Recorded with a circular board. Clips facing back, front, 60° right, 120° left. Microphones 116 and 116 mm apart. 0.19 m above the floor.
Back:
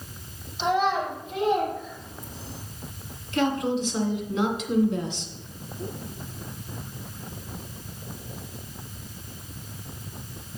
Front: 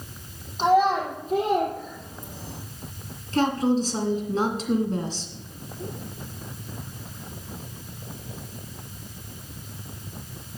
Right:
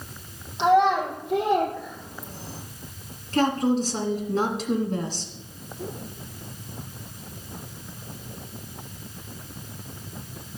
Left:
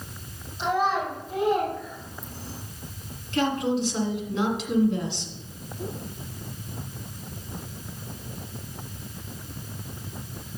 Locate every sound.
0.6 s a child speaking: 45° right, 4.5 m; by 2.6 s 35° right, 3.5 m
3.3 s a woman speaking: 35° right, 2.0 m